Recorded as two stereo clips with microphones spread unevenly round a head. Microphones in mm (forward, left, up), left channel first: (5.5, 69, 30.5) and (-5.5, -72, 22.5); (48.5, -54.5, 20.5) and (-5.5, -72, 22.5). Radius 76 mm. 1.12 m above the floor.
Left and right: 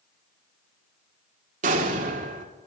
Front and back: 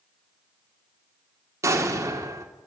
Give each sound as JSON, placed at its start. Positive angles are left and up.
{"t": 1.6, "sound": "an explosion", "azimuth_deg": -135, "distance_m": 1.7}